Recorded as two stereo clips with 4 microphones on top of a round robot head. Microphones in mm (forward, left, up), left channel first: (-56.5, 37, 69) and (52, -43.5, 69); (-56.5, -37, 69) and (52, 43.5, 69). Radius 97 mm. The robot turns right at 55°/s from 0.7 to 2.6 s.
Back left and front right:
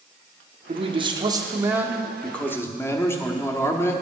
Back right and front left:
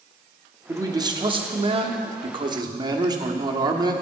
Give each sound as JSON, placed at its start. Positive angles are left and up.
{"t": 0.7, "sound": "a man speaking", "azimuth_deg": -25, "distance_m": 1.2}